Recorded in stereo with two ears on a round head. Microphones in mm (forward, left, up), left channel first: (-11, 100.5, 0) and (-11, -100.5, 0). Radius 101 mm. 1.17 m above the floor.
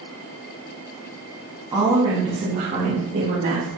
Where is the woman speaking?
15° right (ahead or behind), 1.9 m; by 3.7 s 45° right (ahead or behind), 2 m.